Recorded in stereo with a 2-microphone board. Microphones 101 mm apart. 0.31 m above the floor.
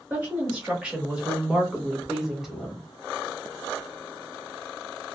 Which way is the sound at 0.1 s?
10° right (ahead or behind).